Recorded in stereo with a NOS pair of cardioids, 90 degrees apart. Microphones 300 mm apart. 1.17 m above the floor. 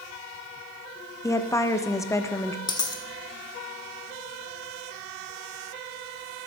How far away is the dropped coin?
About 1.8 m.